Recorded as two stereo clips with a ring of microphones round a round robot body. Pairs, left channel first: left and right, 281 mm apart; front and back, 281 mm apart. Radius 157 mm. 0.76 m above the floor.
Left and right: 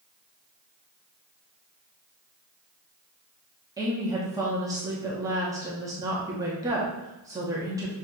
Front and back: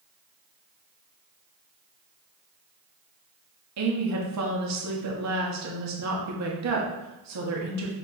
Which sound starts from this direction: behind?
A woman speaking, at 3.8 s.